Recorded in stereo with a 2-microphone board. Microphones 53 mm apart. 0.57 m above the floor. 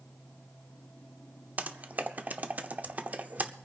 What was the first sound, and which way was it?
Typing on a keyboard, 35° right (ahead or behind).